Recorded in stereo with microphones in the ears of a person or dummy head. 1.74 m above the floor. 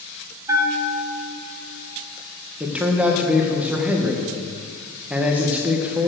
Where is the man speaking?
15° right (ahead or behind), 1.4 m.